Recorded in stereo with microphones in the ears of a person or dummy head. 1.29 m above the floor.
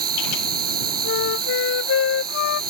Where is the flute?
75° left (ahead or behind).